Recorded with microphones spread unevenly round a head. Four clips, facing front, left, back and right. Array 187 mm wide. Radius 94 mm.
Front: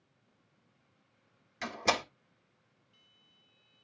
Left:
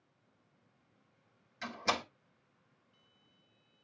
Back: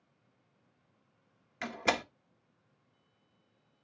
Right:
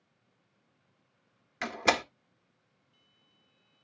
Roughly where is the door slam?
Right.